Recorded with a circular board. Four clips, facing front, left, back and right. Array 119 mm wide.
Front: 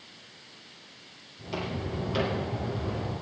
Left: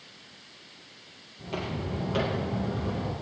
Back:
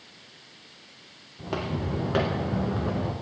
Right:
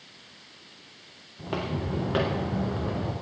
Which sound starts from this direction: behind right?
Footsteps, at 1.4 s.